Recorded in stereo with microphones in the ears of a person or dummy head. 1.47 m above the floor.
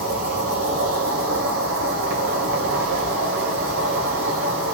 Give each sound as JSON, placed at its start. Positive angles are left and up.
{"t": 0.0, "sound": "an insect", "side_deg": -70, "distance_m": 3.0}